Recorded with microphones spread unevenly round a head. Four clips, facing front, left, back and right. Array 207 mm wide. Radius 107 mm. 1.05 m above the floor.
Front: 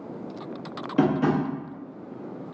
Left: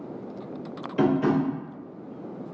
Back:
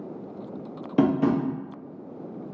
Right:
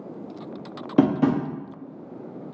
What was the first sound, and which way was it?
Tapping, 95° right.